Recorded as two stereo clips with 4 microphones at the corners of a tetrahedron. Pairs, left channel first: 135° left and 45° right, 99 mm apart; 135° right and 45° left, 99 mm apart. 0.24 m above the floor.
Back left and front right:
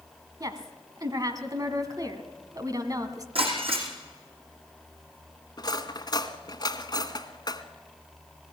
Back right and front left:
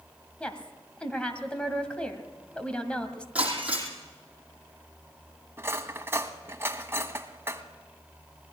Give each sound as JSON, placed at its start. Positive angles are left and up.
{"t": 0.4, "sound": "a woman speaking", "azimuth_deg": -60, "distance_m": 1.8}
{"t": 3.4, "sound": "breaking glass", "azimuth_deg": -30, "distance_m": 5.0}
{"t": 5.6, "sound": "cutlery clinking", "azimuth_deg": 105, "distance_m": 1.2}